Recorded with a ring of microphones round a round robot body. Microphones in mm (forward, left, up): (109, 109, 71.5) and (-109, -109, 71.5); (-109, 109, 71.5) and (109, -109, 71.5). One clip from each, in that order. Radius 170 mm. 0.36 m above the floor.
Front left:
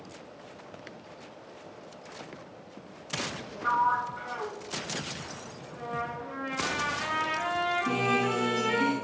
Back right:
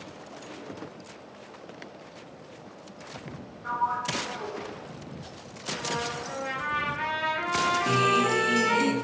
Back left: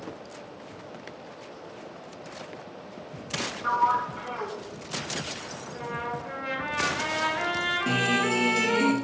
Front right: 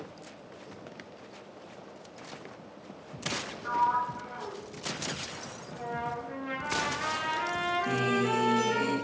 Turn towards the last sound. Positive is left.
turn(degrees=180)